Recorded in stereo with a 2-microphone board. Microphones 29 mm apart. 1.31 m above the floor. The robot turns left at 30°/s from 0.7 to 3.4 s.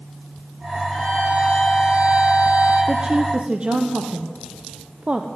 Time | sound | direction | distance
0.9 | a violin | 5° left | 7 m
2.9 | a woman speaking | 25° right (ahead or behind) | 0.6 m